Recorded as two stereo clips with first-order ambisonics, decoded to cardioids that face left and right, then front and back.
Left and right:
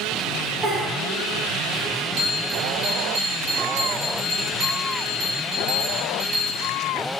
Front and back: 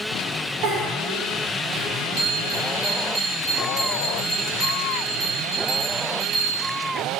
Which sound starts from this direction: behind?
A giggle, at 0.6 s.